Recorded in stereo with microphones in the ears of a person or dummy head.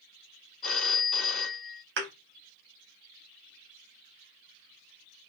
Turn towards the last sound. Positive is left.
turn(degrees=-65)  # may be behind; listen again after turning